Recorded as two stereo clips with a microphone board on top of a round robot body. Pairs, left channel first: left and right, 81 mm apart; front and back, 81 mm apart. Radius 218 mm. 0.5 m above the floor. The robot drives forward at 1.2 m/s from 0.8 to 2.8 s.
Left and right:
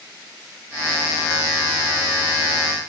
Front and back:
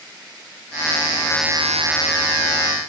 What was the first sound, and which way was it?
Only background noise.